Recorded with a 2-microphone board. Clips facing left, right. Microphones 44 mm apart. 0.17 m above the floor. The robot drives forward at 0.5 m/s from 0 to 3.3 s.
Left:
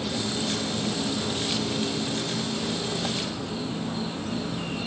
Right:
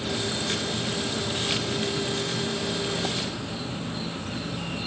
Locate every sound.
0.0 s an insect: 55° left (ahead or behind), 6 m; by 4.9 s 45° left (ahead or behind), 7 m